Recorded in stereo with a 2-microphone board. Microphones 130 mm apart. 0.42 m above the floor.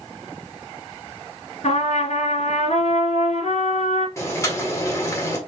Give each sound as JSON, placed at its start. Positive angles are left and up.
{"t": 1.6, "sound": "a trumpet", "side_deg": 65, "distance_m": 2.0}
{"t": 4.2, "sound": "boiling", "side_deg": 25, "distance_m": 1.3}